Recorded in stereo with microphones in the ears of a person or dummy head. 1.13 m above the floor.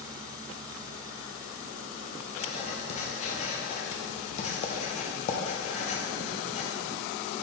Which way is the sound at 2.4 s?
35° left (ahead or behind).